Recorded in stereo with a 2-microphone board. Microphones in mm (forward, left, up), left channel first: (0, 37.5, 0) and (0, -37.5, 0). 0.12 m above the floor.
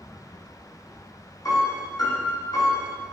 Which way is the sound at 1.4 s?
55° left (ahead or behind).